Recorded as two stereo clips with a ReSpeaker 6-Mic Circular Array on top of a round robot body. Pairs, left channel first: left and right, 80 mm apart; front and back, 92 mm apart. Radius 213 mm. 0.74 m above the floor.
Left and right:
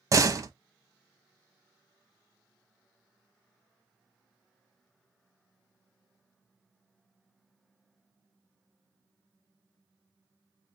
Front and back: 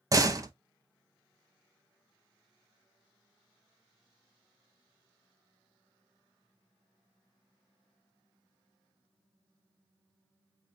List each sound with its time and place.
0.1 s a door slam: 130° right, 0.9 m